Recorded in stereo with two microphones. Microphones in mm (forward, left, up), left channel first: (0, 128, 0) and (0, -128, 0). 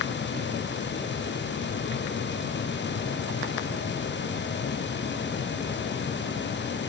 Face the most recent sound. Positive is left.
No sound to turn to.